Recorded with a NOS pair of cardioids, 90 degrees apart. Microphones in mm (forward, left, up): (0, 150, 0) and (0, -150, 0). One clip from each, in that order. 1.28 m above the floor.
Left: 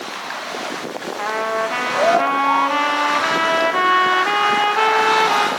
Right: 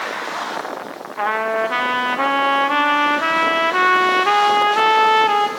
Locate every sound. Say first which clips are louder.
1.2 s a trumpet: right 2 dB; 15° right, 1.6 m